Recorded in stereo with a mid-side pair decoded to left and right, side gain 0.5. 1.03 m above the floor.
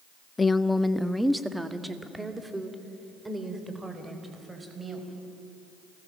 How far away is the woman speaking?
About 0.8 m.